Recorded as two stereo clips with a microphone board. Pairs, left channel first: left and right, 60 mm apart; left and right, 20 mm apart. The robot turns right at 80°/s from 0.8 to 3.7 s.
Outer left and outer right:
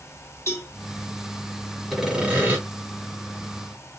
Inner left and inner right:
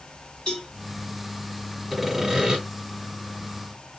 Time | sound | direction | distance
0.5 | a cowbell | 45° left (ahead or behind) | 1.9 m
1.9 | sawing | straight behind | 1.6 m